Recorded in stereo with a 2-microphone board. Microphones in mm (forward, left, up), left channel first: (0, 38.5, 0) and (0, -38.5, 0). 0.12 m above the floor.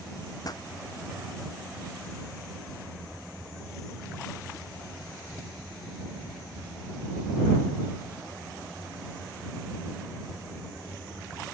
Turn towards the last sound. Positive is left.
turn(degrees=55)  # may be behind; listen again after turning